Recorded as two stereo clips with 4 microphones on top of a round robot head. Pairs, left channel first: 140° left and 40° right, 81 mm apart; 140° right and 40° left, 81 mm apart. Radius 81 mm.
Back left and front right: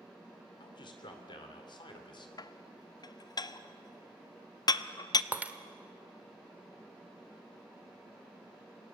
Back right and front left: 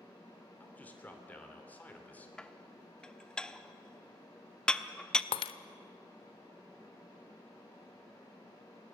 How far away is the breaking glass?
About 0.6 m.